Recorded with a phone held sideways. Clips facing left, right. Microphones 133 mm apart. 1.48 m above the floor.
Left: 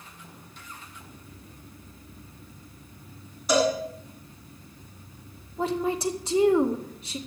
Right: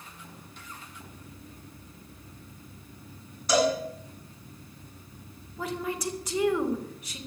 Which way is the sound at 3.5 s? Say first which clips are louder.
Left 1 dB; 10° left (ahead or behind).